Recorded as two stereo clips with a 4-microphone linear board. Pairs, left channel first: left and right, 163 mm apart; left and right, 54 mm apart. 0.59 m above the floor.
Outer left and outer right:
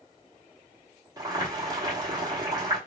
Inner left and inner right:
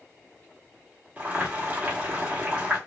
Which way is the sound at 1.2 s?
25° right (ahead or behind).